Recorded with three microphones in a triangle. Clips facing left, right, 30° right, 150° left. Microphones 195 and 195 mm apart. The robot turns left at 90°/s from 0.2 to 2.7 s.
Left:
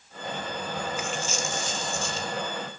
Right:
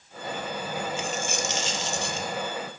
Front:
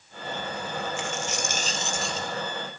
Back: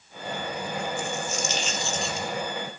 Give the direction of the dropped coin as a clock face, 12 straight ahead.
1 o'clock.